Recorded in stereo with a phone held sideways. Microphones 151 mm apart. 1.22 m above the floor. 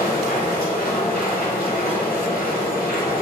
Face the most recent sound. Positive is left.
turn(degrees=85)